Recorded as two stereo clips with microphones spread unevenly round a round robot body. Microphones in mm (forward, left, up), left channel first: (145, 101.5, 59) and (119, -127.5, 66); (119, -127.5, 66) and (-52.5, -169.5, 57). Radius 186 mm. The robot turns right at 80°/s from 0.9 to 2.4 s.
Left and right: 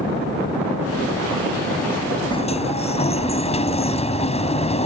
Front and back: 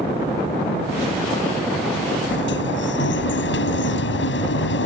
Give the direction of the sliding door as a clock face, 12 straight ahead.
12 o'clock.